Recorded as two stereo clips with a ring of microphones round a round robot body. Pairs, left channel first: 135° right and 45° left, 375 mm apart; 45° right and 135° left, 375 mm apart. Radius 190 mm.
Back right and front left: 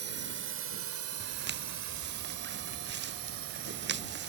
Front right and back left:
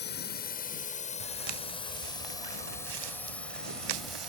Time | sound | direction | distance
0.0 | a drone | straight ahead | ?
1.2 | footsteps | 110° left | ?